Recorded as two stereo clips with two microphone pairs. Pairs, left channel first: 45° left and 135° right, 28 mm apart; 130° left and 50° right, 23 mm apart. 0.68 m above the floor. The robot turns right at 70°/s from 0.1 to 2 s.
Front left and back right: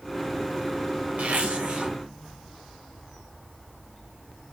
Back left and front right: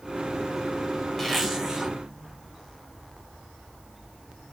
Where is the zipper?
145° right, 0.9 m; by 1.9 s 90° right, 0.9 m.